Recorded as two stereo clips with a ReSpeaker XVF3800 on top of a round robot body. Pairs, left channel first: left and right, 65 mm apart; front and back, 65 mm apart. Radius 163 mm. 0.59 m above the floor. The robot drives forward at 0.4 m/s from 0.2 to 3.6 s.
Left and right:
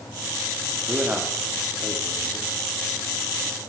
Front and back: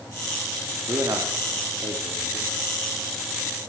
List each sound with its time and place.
0.8 s a man speaking: 150° right, 2 m; by 2.5 s 160° right, 2.5 m